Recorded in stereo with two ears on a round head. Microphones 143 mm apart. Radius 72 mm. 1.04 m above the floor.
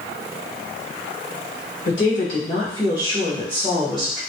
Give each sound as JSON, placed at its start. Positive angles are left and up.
{"t": 1.9, "sound": "a woman speaking", "side_deg": 55, "distance_m": 1.7}